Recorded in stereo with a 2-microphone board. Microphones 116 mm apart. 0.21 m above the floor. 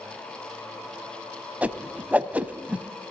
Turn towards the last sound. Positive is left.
turn(degrees=-15)  # may be behind; listen again after turning